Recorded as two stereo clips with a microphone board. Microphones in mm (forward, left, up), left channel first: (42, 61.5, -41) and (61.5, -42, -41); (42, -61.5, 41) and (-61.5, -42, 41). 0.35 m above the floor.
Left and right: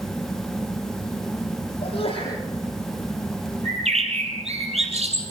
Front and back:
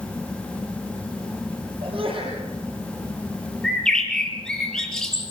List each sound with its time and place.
1.8 s a sneeze: 135° left, 9.5 m
3.6 s a bird: 95° right, 4.5 m